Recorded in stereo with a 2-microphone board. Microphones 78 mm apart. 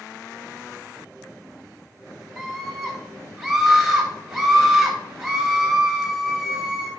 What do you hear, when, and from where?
2.4 s a scream: 5° right (ahead or behind), 1.0 m